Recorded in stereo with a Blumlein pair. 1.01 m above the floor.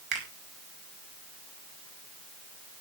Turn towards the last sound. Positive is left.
turn(degrees=-40)